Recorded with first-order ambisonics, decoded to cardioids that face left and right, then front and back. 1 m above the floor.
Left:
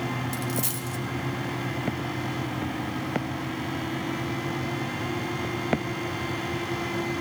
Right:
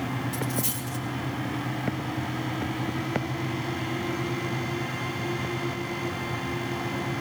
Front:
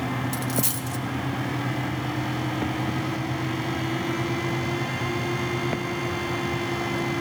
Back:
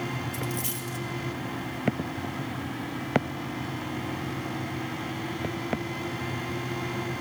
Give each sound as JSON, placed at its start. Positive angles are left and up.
{"t": 0.3, "sound": "a dropped coin", "azimuth_deg": 25, "distance_m": 3.0}